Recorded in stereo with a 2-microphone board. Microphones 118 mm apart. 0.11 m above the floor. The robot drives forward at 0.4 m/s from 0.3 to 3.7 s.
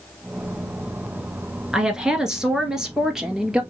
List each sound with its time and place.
1.7 s a woman speaking: 5° right (ahead or behind), 1.2 m